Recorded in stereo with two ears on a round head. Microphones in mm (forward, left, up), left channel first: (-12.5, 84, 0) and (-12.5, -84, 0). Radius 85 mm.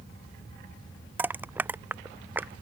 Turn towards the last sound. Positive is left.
turn(degrees=-10)  # may be behind; listen again after turning